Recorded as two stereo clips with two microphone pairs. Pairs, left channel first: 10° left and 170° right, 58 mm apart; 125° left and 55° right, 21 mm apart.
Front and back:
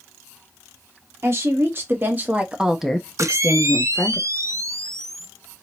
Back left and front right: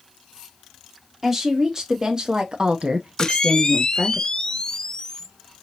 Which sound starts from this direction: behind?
A camera shutter, at 3.2 s.